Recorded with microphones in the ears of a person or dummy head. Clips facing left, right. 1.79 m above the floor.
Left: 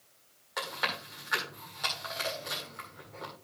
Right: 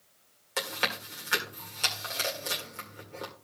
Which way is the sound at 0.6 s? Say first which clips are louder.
Right 3 dB; 35° right (ahead or behind).